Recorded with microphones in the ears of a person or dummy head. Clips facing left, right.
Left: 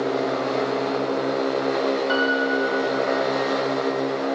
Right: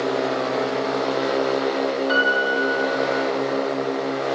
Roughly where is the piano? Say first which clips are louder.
Even; centre.